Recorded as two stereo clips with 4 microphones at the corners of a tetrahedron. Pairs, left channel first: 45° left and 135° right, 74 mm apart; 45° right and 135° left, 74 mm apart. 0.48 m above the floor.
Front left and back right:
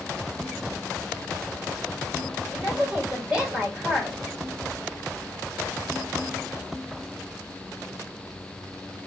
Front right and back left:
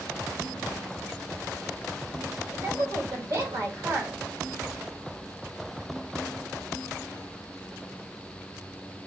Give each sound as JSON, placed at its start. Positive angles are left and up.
{"t": 2.5, "sound": "a woman speaking", "azimuth_deg": 150, "distance_m": 2.5}